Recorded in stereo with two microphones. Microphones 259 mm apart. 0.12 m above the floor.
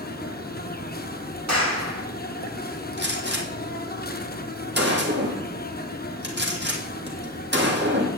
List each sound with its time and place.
0.0 s an insect: 35° left (ahead or behind), 0.9 m
1.5 s a clap: 75° right (ahead or behind), 4 m
3.0 s a gunshot: 40° right (ahead or behind), 2.5 m